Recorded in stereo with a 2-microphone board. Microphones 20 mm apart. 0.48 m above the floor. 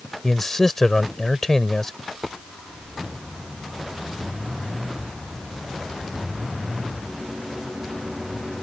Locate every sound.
0.2 s a man speaking: 25° left (ahead or behind)
2.0 s a dropped coin: centre (ahead or behind)